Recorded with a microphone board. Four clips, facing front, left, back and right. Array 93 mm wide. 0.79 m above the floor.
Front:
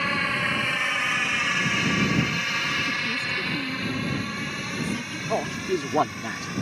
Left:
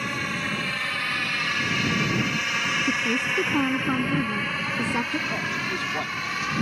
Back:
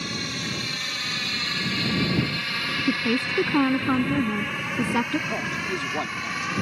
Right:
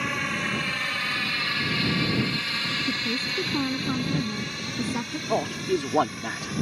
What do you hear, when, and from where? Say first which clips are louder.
0.0 s a drone: even, front 6 dB; 10° right; by 6.6 s 125° left
2.9 s a woman speaking: left 4 dB, back 6 dB; 155° left
5.3 s a man speaking: right 4 dB, front 3 dB; 55° right